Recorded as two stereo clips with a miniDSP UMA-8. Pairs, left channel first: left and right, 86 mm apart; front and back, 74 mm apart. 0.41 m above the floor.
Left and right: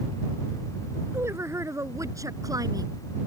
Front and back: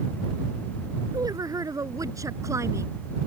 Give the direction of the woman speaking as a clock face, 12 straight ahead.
5 o'clock.